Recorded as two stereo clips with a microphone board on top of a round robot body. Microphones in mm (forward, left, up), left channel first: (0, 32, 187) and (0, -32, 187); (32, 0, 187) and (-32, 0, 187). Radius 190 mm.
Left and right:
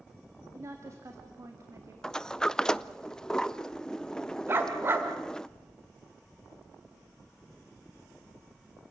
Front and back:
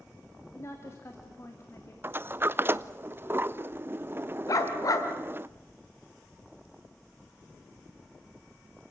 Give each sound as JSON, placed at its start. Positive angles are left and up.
{"t": 0.5, "sound": "a woman speaking", "azimuth_deg": -50, "distance_m": 2.0}
{"t": 2.0, "sound": "a sliding door", "azimuth_deg": 160, "distance_m": 0.8}
{"t": 4.5, "sound": "a dog barking", "azimuth_deg": -35, "distance_m": 1.8}